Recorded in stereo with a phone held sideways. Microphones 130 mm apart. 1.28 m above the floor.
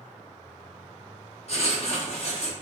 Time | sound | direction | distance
1.5 | writing | 55° left (ahead or behind) | 1.5 m